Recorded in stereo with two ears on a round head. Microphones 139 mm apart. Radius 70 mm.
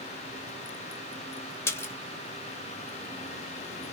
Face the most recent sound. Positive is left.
turn(degrees=15)  # may be behind; listen again after turning